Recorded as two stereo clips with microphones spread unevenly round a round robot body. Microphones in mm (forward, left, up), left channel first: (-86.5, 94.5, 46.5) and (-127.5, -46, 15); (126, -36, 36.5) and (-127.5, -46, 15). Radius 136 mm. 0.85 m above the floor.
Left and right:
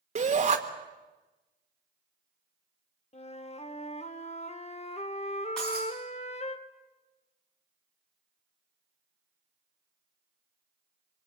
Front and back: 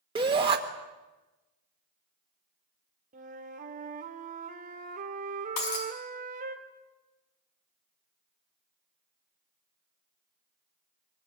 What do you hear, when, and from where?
0.1 s a shout: 115° right, 1.5 m
3.1 s a flute: 120° left, 1.5 m
5.6 s breaking glass: 15° right, 5 m